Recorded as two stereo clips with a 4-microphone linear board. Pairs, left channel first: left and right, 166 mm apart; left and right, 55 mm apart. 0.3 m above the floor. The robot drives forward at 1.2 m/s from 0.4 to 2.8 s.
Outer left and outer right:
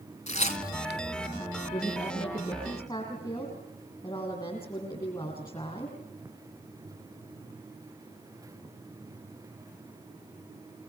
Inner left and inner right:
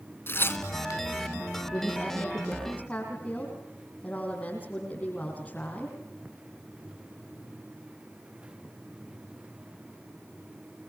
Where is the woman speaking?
25° left (ahead or behind), 7.5 m.